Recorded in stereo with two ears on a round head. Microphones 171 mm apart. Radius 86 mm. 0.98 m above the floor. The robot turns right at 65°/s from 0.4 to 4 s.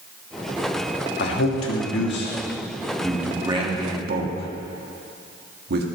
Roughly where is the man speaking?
Left.